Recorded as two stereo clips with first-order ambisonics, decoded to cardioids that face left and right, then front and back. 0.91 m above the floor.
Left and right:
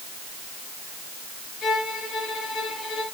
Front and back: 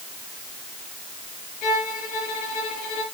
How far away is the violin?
About 6 m.